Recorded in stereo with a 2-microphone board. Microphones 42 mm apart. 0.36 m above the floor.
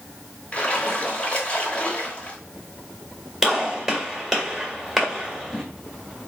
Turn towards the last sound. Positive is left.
turn(degrees=-5)  # may be behind; listen again after turning